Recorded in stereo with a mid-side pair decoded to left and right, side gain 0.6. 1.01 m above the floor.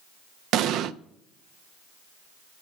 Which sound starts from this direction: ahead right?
An explosion, at 0.5 s.